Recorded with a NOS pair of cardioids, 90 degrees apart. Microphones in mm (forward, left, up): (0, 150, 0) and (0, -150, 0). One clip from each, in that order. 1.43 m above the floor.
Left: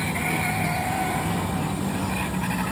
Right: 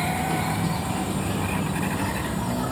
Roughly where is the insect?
Ahead.